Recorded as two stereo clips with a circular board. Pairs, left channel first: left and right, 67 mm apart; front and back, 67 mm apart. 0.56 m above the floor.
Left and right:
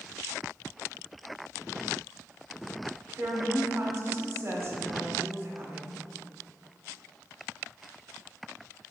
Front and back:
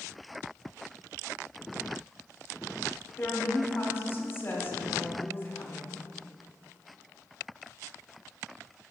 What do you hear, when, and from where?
3.2 s a woman speaking: 50° right, 1.3 m